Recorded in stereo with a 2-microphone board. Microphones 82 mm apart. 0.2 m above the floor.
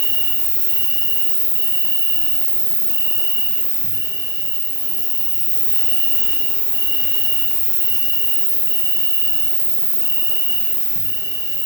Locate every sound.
0.0 s an insect: 25° left (ahead or behind), 3.5 m